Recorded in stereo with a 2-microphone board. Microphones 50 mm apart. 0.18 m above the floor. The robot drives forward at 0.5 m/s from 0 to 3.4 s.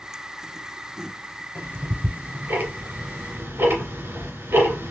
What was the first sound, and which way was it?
Ticking, 40° right (ahead or behind).